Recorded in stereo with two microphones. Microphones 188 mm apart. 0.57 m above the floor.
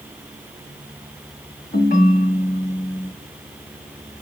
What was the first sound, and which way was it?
A ringtone, 50° left (ahead or behind).